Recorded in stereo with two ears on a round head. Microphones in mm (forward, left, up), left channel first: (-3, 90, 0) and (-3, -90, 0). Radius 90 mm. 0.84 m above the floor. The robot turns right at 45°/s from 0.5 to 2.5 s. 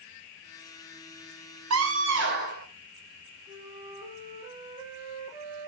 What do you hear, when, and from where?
1.7 s a scream: 80° right, 3.5 m; by 2.7 s 45° right, 3.5 m
3.5 s a flute: 15° right (ahead or behind), 4 m